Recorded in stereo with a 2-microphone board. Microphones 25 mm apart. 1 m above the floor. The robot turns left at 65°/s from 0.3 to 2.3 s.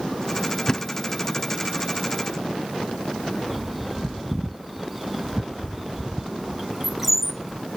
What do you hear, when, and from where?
0.7 s a thud: 25° left (ahead or behind); by 0.8 s 30° left (ahead or behind)
3.5 s a bird: 10° right (ahead or behind)